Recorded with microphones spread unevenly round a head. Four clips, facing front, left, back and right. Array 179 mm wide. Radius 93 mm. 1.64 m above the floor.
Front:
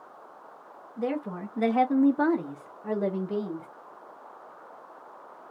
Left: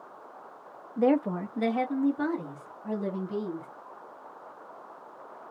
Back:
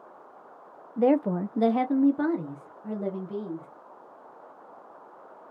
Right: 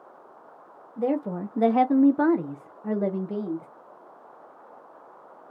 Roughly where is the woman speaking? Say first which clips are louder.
Left 2 dB, back 8 dB; behind left.